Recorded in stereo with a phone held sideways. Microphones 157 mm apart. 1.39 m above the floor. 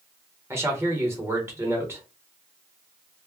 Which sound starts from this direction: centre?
A man speaking, at 0.5 s.